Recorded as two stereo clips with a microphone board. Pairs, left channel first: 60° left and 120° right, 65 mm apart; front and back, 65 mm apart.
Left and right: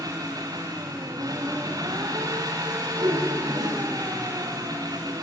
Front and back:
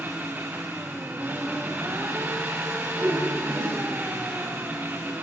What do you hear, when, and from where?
0.0 s an engine running: 120° right, 3.5 m
3.0 s a whoosh: 130° right, 5 m